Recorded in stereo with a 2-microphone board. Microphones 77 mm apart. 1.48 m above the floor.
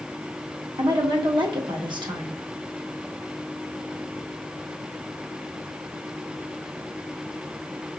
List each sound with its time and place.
0.8 s a woman speaking: 70° right (ahead or behind), 1.2 m